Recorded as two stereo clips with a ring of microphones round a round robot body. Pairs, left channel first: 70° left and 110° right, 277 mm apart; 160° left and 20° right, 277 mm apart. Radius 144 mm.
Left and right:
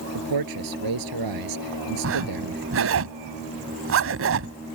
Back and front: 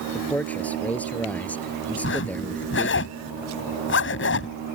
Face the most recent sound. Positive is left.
turn(degrees=-155)